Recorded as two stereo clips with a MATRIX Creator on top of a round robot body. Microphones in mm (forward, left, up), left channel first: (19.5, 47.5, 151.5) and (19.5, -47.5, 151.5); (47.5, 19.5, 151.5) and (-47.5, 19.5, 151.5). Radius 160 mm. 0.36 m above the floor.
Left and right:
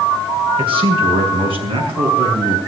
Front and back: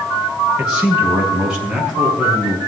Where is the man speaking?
100° right, 5 m.